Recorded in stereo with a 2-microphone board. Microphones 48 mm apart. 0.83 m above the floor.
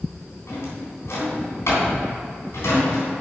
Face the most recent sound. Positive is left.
turn(degrees=65)  # may be behind; listen again after turning